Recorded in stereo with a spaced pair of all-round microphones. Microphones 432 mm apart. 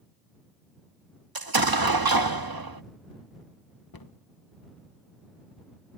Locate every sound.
1.4 s an explosion: 55° right (ahead or behind)
3.9 s a cupboard door: 55° left (ahead or behind)